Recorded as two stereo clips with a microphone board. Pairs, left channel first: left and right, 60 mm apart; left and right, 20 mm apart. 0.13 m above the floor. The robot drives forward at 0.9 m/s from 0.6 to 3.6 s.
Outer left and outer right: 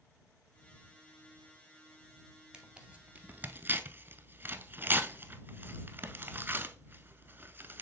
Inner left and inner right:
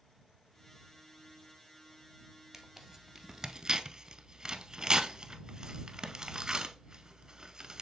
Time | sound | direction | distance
2.5 | tearing paper | 15° right (ahead or behind) | 1.3 m